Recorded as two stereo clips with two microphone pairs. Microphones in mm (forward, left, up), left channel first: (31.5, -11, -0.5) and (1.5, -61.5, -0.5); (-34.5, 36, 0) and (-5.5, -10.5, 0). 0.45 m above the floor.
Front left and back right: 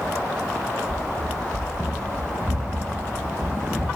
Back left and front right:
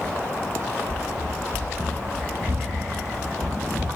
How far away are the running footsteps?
About 2 m.